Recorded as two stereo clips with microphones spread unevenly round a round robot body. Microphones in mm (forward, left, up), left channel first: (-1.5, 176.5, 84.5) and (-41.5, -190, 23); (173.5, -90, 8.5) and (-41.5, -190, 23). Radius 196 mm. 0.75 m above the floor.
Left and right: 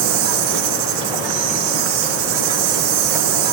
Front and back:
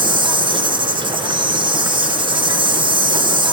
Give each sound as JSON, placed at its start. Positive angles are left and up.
{"t": 0.0, "sound": "an insect", "azimuth_deg": -80, "distance_m": 1.3}